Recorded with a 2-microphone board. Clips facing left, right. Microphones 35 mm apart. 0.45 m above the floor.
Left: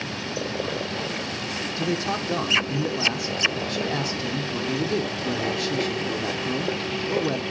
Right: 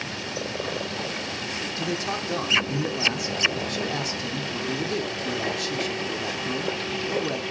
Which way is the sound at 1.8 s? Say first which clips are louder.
Left 3 dB; 5° left (ahead or behind).